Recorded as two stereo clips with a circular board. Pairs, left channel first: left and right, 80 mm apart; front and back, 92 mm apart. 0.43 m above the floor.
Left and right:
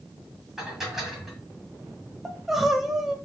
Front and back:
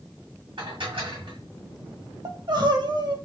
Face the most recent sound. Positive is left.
turn(degrees=-175)